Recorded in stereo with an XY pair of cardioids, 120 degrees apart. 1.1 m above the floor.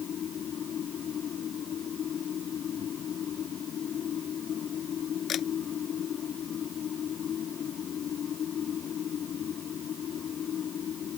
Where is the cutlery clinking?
I don't hear cutlery clinking.